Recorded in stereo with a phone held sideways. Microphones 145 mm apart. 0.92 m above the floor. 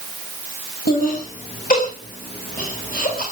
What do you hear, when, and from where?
0.9 s laughter: 85° left, 6 m; by 3.2 s 80° left, 6.5 m